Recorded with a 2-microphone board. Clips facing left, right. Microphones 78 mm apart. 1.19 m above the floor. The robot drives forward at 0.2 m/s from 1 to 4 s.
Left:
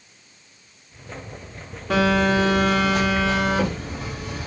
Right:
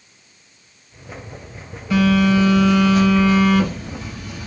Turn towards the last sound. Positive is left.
turn(degrees=80)